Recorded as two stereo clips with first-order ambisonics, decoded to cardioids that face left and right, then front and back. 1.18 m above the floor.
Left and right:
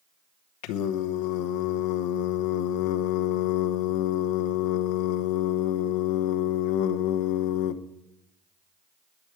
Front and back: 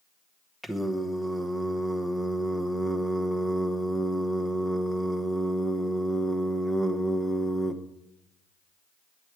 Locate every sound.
0.6 s singing: 90° left, 0.9 m